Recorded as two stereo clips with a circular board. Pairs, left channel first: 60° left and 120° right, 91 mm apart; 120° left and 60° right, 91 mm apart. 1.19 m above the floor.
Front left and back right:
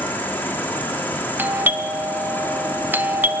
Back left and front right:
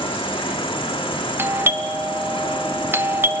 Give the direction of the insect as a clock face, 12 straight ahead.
8 o'clock.